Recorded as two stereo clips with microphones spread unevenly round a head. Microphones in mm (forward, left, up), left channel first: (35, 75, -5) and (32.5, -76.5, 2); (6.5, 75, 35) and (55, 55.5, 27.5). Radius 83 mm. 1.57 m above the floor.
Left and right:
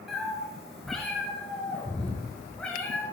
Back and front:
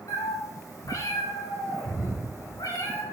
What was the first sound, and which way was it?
A cat meowing, straight behind.